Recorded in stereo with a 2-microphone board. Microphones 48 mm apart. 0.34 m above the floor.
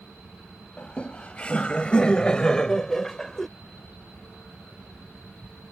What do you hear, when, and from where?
0.8 s laughter: 30° left (ahead or behind); by 3.5 s 5° left (ahead or behind)